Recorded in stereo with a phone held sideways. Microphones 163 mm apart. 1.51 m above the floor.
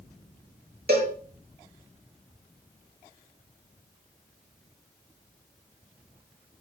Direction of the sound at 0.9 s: 75° right (ahead or behind).